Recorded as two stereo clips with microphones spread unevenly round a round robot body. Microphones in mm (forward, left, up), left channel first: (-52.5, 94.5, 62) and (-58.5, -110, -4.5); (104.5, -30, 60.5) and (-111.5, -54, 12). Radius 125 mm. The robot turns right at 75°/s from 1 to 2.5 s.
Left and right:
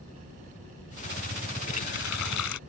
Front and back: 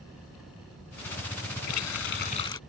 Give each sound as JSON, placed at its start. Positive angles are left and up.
{"t": 1.7, "sound": "a running tap", "azimuth_deg": 20}